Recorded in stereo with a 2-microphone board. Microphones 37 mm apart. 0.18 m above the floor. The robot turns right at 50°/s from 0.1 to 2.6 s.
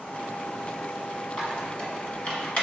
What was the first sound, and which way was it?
A squeak, 15° left (ahead or behind).